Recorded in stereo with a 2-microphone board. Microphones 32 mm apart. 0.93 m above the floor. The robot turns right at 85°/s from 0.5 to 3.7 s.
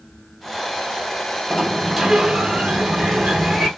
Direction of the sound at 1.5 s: 145° left.